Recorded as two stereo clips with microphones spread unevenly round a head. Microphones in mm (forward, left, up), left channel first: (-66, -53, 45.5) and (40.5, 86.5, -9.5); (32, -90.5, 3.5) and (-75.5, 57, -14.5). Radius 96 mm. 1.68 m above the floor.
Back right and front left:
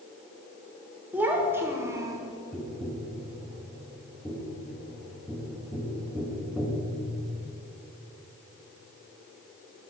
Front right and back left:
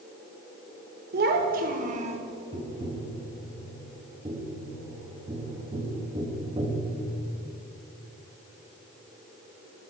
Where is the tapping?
175° left, 1.1 m.